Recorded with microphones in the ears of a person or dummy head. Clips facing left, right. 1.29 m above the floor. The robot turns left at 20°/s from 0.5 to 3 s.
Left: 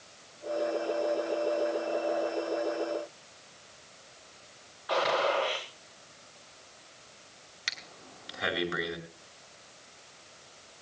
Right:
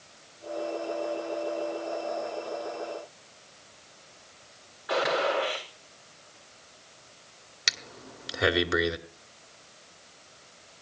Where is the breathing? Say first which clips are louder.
Right 6 dB; 75° right (ahead or behind), 2.5 m.